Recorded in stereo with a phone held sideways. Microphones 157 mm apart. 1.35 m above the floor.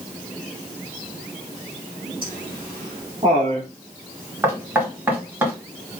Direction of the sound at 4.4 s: 15° right (ahead or behind).